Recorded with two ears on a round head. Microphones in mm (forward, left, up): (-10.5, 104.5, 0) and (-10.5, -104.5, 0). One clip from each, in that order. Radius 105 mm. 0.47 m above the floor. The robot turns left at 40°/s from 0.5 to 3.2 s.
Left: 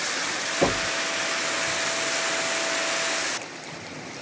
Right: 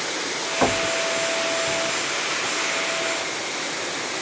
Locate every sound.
0.6 s knocking: 60° right (ahead or behind), 1.9 m; by 0.9 s 50° right (ahead or behind), 1.9 m